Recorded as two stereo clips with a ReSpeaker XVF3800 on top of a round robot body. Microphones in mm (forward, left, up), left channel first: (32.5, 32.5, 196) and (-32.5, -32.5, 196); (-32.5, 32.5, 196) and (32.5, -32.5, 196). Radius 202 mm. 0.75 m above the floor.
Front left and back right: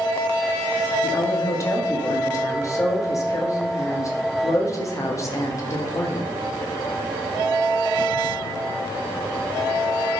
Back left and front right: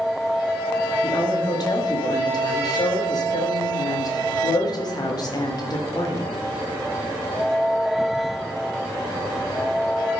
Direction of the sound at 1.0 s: 95° left.